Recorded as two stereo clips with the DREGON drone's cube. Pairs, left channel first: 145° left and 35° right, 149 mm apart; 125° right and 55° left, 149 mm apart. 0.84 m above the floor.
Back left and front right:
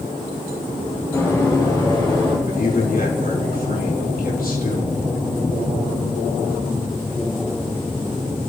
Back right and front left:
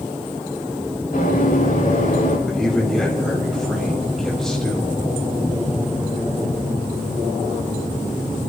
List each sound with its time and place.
1.1 s running footsteps: 145° right, 8.5 m; by 2.4 s 160° right, 7.5 m
2.5 s a man speaking: 150° left, 5.5 m